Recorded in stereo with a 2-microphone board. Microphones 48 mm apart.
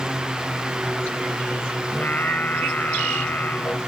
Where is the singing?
40° left (ahead or behind).